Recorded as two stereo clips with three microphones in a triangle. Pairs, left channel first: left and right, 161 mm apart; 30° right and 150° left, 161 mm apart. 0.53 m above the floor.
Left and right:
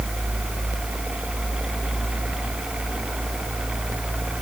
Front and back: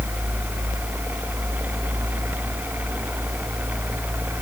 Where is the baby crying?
No baby crying in this recording.